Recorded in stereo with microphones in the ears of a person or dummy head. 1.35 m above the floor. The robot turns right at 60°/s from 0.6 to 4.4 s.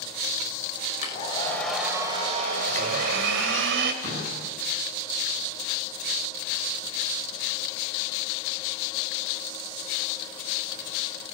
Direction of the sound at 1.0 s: 135° left.